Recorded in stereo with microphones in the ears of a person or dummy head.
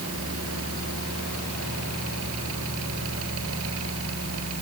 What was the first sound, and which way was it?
A fan, 75° right (ahead or behind).